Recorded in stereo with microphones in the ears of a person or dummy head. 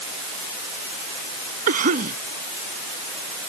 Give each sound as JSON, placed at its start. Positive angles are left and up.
{"t": 1.7, "sound": "a cough", "side_deg": -55}